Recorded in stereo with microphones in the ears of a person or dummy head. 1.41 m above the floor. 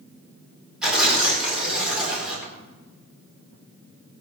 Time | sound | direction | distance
0.8 | tearing paper | 5° right (ahead or behind) | 4 m